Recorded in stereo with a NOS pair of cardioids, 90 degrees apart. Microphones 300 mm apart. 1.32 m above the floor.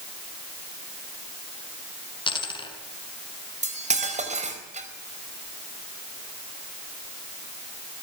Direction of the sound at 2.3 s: 15° left.